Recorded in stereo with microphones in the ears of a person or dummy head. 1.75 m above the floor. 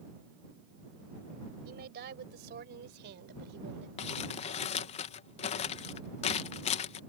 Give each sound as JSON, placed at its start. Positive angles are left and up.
{"t": 1.6, "sound": "a woman speaking", "side_deg": -55}
{"t": 4.0, "sound": "crumpling", "side_deg": 30}